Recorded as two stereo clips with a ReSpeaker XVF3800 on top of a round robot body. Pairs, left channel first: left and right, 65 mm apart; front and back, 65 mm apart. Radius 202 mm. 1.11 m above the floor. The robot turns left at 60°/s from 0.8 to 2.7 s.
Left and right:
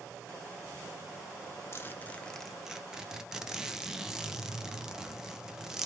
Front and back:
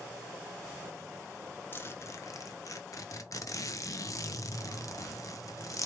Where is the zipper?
50° left, 0.9 m; by 5.9 s 10° right, 0.9 m.